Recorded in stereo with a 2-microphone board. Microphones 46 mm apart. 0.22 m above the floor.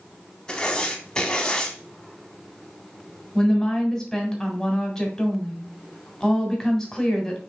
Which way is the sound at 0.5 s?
15° left (ahead or behind).